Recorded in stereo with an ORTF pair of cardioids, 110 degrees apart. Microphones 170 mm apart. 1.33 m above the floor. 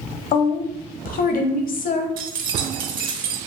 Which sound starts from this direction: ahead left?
A woman speaking, at 0.3 s.